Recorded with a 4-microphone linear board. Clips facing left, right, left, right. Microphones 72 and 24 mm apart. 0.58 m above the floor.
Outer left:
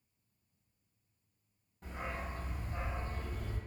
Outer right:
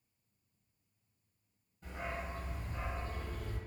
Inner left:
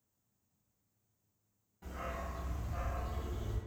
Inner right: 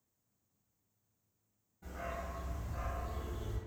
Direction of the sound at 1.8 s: 75° left (ahead or behind).